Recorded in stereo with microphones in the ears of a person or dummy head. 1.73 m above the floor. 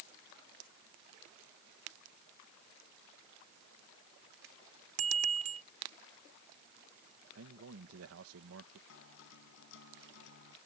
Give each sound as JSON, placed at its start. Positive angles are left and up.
{"t": 5.0, "sound": "a bicycle bell", "side_deg": -35}
{"t": 7.3, "sound": "a man speaking", "side_deg": -75}
{"t": 8.9, "sound": "a guitar", "side_deg": 70}